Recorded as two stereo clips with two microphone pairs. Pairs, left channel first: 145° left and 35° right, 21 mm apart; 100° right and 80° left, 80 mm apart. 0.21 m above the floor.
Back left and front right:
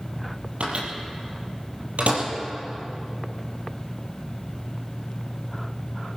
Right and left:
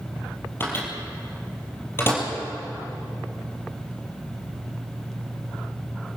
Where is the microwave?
40° right, 4 m.